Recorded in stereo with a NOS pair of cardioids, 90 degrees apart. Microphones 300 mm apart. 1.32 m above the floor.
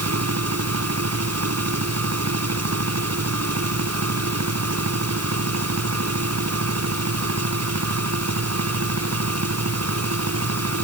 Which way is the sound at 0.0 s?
55° right.